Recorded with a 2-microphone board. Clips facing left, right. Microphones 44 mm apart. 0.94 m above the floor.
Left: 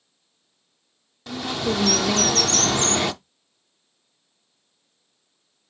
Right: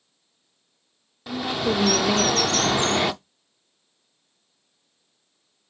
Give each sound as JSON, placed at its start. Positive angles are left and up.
{"t": 1.3, "sound": "a bird", "side_deg": -5, "distance_m": 0.6}